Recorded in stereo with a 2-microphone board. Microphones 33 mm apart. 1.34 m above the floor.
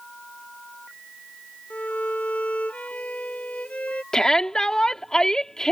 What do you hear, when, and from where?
1.7 s a violin: 50° left (ahead or behind)
4.1 s a shout: 20° left (ahead or behind)